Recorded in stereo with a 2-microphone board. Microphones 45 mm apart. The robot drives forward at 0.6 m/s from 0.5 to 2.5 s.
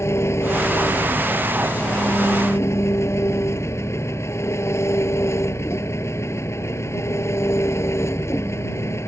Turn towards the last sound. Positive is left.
turn(degrees=85)